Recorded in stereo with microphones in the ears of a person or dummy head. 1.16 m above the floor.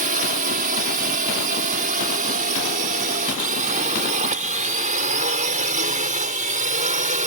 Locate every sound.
0.0 s a drone: 40° right (ahead or behind)